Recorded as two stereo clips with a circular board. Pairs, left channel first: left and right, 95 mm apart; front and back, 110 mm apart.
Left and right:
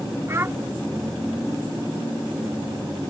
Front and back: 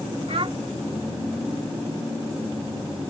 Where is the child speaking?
150° right.